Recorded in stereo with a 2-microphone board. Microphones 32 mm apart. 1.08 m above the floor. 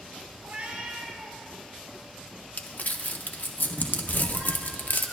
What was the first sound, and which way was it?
A cat meowing, 60° right (ahead or behind).